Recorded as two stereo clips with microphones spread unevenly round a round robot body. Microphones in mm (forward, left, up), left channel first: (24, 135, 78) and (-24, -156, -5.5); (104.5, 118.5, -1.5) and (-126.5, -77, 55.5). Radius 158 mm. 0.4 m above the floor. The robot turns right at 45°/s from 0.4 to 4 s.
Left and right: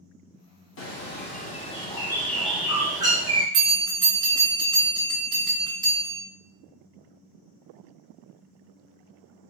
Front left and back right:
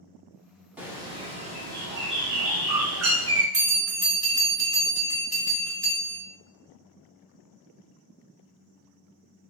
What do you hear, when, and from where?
0.8 s a bird: 120° left, 0.7 m; by 3.4 s 120° right, 0.7 m
3.5 s a bell: 115° right, 2 m; by 6.2 s 95° right, 2 m